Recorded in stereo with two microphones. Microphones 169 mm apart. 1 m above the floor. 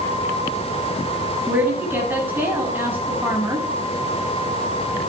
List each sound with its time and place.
1.5 s a woman speaking: 10° right (ahead or behind), 7.5 m